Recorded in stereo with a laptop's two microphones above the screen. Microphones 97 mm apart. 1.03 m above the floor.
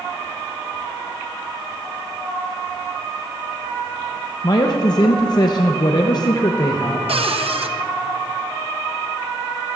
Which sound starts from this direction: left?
A man speaking, at 4.4 s.